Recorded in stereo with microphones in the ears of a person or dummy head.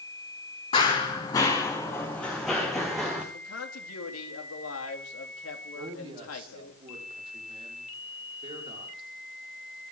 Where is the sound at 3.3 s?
85° left, 3 m.